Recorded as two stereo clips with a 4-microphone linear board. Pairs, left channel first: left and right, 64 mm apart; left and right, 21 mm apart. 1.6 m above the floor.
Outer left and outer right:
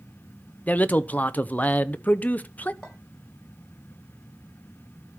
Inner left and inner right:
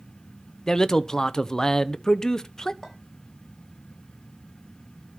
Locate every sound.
0.7 s a man speaking: 25° left (ahead or behind), 0.7 m
2.8 s a clink: 5° left (ahead or behind), 5.5 m